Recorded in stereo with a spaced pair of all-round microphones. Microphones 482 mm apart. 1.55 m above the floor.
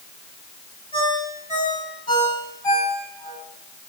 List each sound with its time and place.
0.9 s a ringtone: 75° left (ahead or behind), 8.5 m